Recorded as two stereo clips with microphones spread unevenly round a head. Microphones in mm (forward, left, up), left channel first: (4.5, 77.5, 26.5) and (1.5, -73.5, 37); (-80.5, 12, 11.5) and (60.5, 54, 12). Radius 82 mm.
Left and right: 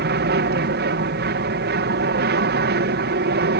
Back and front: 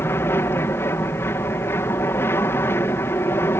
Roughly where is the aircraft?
Right.